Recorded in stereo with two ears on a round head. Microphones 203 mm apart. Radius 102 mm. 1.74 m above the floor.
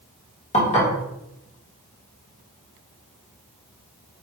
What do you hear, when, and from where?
0.5 s dishes clattering: 30° left (ahead or behind), 1.3 m